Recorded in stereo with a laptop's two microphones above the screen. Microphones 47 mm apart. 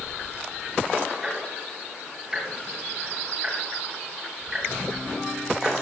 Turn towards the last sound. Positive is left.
turn(degrees=-10)  # may be behind; listen again after turning